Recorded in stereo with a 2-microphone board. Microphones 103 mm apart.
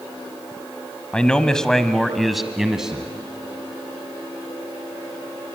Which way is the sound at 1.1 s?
10° left (ahead or behind).